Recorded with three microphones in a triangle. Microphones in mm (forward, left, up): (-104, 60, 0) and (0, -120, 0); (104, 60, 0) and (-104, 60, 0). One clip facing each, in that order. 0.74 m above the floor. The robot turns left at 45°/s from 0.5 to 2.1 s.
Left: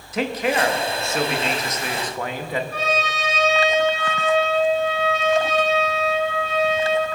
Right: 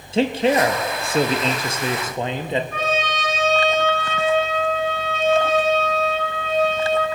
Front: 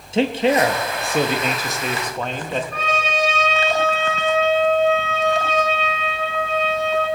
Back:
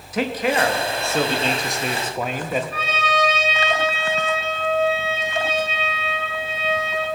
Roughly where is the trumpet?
Right.